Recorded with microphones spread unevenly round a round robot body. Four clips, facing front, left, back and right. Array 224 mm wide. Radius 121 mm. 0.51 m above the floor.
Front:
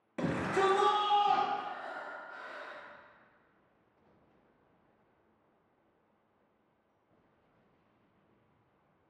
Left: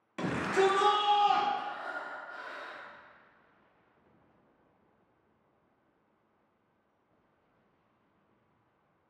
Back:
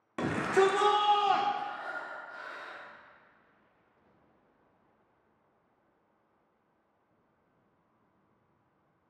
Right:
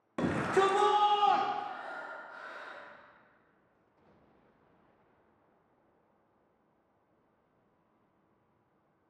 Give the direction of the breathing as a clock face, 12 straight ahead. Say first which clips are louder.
Left 1 dB, back 3 dB; 8 o'clock.